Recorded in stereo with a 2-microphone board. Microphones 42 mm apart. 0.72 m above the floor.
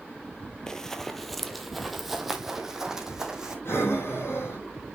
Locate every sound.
0.7 s running footsteps: 15° left (ahead or behind), 1.1 m; by 3.5 s 10° right (ahead or behind), 2.5 m
3.6 s breathing: 70° left (ahead or behind), 4.5 m